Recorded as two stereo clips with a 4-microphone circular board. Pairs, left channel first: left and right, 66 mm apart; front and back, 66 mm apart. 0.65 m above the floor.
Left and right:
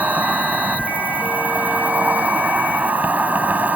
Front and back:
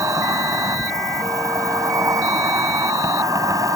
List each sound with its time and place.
0.0 s an insect: 155° right